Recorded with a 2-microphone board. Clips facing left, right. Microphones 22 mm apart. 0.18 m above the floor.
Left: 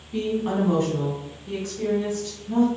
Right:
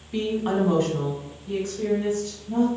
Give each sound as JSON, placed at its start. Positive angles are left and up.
{"t": 0.1, "sound": "a woman speaking", "side_deg": -30, "distance_m": 1.2}